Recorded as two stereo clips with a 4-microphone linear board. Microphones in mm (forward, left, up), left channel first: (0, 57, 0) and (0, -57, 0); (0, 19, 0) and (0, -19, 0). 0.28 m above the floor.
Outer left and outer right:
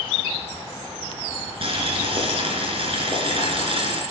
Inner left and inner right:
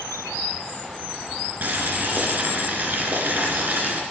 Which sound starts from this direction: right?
Boiling, at 1.6 s.